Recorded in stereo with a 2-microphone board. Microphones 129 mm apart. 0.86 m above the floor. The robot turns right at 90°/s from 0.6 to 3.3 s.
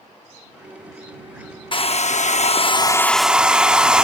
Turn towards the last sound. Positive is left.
turn(degrees=-170)